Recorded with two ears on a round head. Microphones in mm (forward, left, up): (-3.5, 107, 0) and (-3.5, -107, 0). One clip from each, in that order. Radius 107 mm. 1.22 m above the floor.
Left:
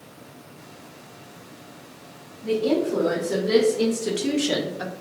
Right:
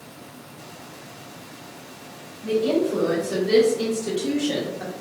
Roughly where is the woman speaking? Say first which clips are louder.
Right 1 dB; centre.